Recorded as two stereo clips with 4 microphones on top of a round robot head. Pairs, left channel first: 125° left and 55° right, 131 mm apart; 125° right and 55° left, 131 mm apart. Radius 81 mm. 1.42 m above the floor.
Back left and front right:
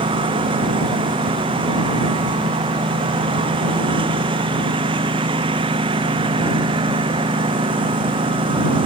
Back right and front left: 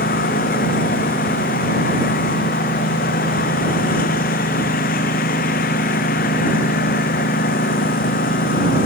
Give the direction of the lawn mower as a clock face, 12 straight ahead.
4 o'clock.